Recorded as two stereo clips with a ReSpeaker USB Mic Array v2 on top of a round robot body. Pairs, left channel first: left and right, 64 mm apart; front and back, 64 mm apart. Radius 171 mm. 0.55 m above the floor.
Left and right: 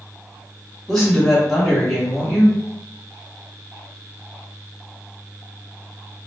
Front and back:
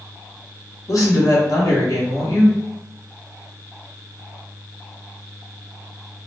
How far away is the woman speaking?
About 1.6 m.